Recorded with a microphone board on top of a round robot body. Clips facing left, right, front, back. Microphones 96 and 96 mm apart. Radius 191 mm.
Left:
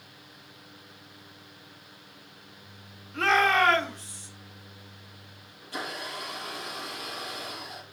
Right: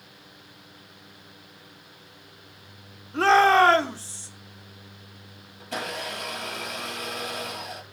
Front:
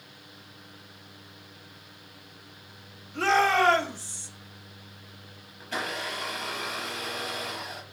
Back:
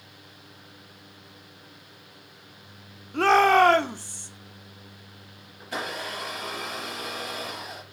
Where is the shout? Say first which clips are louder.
Right 6 dB, back 5 dB; 150° right, 2 m.